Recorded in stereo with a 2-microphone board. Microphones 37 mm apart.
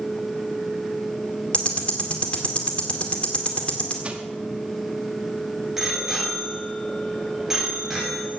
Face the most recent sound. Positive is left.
turn(degrees=-10)  # may be behind; listen again after turning